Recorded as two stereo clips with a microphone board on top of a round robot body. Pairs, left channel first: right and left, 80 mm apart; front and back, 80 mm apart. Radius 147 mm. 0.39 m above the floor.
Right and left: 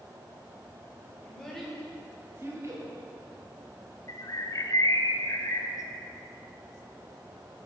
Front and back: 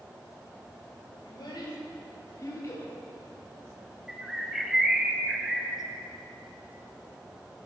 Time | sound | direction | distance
1.2 | a child speaking | 15° right | 2 m
4.1 | a bird | 100° right | 0.7 m